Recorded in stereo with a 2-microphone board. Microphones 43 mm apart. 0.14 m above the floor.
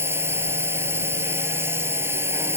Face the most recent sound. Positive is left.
turn(degrees=-60)  # may be behind; listen again after turning